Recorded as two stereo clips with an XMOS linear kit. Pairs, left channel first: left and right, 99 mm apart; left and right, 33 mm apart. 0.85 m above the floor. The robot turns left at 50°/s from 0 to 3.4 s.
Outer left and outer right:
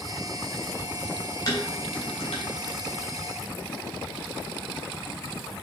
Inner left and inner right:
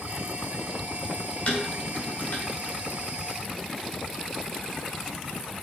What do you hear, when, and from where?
1.5 s dishes clattering: 35° left (ahead or behind), 3 m; by 2.4 s 85° left, 3 m